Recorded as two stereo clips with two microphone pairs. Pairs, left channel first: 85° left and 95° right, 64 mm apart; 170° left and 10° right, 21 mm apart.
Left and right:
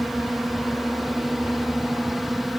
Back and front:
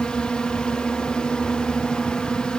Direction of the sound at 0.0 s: Straight behind.